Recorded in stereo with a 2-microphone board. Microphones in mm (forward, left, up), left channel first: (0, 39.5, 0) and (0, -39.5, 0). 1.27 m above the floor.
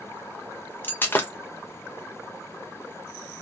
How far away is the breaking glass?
About 0.5 m.